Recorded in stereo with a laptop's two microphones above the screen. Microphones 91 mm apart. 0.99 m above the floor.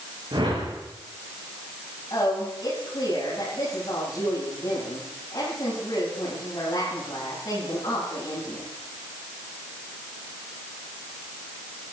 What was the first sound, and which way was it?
A whoosh, 65° right (ahead or behind).